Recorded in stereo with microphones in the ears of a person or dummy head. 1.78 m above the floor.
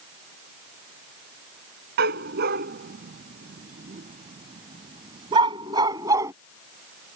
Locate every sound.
2.0 s a dog barking: 50° right (ahead or behind); by 6.3 s 10° right (ahead or behind)